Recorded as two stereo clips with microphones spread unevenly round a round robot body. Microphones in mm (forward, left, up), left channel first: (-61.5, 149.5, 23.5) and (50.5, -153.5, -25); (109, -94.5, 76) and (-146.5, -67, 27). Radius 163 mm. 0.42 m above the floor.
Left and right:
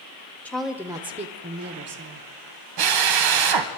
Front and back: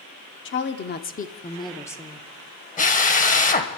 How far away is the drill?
About 1.5 m.